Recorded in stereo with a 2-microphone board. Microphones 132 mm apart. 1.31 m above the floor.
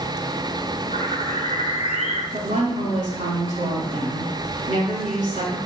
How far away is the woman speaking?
About 4 m.